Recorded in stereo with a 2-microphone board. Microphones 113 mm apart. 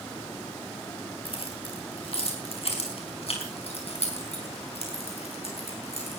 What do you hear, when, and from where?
1.2 s keys jangling: 50° left (ahead or behind), 4 m; by 6.2 s 60° left (ahead or behind), 7 m